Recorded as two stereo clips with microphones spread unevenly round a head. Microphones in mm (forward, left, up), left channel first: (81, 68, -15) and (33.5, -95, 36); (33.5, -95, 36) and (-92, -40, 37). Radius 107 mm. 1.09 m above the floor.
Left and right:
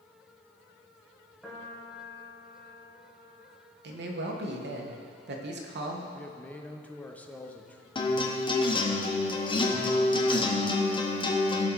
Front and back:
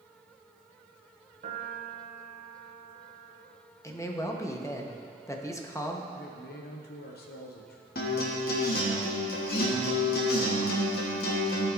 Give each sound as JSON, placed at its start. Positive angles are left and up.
{"t": 1.4, "sound": "a piano", "azimuth_deg": 170, "distance_m": 1.5}
{"t": 3.8, "sound": "a man speaking", "azimuth_deg": -90, "distance_m": 1.1}
{"t": 6.1, "sound": "a man speaking", "azimuth_deg": -10, "distance_m": 0.9}
{"t": 8.0, "sound": "a guitar", "azimuth_deg": 10, "distance_m": 1.2}